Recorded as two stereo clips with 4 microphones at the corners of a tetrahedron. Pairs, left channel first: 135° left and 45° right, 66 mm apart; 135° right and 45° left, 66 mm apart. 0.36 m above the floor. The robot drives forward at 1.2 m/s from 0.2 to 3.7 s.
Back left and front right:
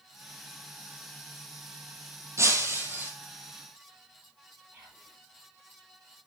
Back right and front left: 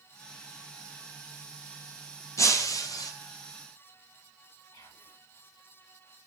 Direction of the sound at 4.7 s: 110° right.